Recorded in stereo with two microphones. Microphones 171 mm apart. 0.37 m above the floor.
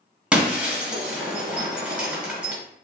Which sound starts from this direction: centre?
Breaking glass, at 0.3 s.